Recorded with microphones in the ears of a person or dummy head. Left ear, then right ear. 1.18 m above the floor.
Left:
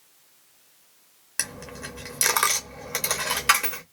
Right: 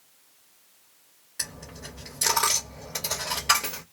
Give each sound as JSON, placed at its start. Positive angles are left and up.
{"t": 1.4, "sound": "a dropped coin", "side_deg": 40, "distance_m": 0.9}